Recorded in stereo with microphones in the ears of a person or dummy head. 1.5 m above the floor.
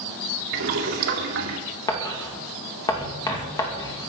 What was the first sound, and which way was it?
Boiling, 65° right (ahead or behind).